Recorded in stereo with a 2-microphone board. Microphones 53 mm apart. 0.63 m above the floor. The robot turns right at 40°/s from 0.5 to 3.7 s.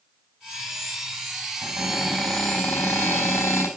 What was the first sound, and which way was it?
A cupboard door, 10° right.